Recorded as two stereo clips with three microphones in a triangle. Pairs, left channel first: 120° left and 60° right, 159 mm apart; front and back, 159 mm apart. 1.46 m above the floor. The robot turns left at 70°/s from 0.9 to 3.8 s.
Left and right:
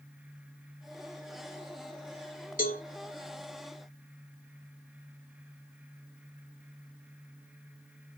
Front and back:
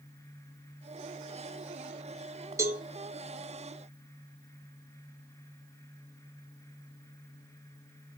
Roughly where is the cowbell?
Left.